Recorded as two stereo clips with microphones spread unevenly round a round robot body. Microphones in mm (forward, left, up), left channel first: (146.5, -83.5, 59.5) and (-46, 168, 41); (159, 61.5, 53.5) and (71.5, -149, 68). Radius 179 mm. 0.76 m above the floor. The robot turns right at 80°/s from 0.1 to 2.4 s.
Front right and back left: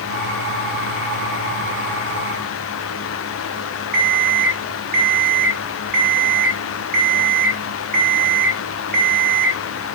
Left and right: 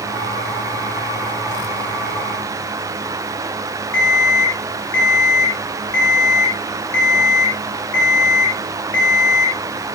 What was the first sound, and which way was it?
An alarm clock, 105° left.